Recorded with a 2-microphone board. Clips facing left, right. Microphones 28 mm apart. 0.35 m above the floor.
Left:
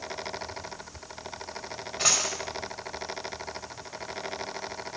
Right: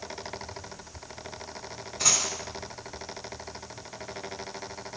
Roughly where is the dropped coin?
Left.